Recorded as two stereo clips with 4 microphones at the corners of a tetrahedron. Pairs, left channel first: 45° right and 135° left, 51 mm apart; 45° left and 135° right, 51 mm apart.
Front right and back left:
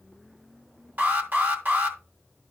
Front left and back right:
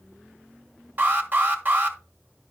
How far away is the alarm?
About 1.4 m.